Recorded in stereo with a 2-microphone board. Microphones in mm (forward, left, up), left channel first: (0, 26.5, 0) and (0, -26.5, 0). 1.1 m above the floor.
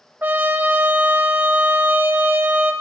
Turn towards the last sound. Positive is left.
turn(degrees=-35)  # may be behind; listen again after turning